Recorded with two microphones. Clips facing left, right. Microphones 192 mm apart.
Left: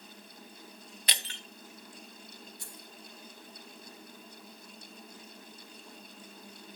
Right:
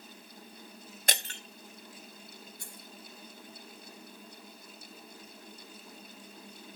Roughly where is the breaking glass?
Right.